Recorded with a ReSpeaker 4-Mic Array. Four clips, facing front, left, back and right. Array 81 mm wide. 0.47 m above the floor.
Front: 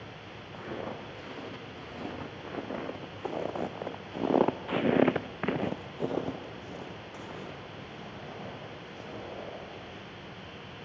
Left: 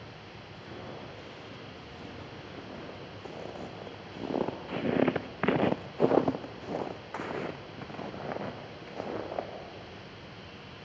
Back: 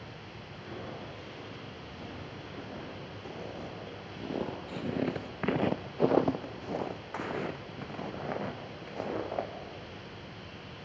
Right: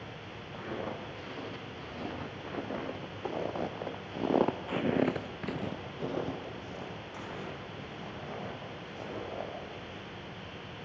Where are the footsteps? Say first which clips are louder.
Right 6 dB, front 5 dB; 35° right, 5.5 m; by 9.5 s 140° left, 5 m.